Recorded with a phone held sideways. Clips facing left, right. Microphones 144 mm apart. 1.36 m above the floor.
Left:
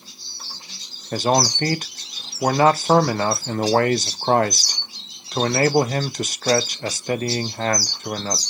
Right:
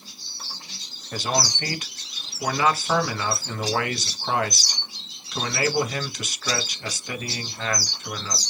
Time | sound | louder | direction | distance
1.1 | a man speaking | left 7 dB | 45° left (ahead or behind) | 0.5 m